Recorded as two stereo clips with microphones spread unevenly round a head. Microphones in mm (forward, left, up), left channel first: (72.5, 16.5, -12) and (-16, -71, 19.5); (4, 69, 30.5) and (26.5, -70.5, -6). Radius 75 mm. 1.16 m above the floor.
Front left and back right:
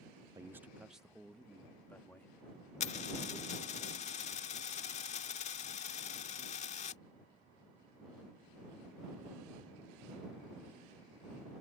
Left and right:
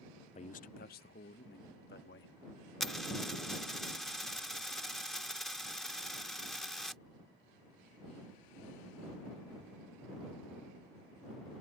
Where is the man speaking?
150° left; by 2.3 s 125° left.